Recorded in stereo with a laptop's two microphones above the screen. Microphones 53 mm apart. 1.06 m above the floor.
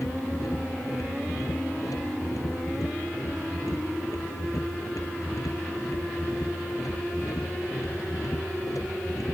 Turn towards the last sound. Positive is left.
turn(degrees=85)